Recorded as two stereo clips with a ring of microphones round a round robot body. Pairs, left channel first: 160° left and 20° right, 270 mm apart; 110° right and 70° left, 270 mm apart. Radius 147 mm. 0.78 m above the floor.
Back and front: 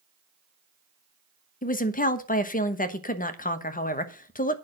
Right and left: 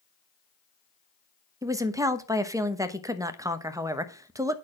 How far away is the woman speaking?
About 1.1 m.